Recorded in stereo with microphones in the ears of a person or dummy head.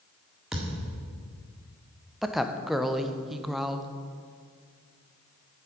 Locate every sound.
0.5 s a thud: centre (ahead or behind), 1.7 m
2.2 s a woman speaking: centre (ahead or behind), 0.5 m